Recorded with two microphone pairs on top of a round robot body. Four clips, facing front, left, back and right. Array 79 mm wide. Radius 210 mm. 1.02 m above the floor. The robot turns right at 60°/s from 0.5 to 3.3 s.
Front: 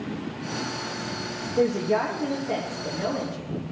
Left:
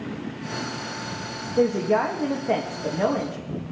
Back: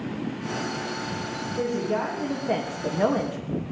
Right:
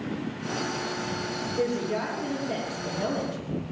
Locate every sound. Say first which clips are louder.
1.6 s a woman speaking: left 8 dB, front 4 dB; 55° left, 1.6 m; by 3.4 s 160° left, 1.6 m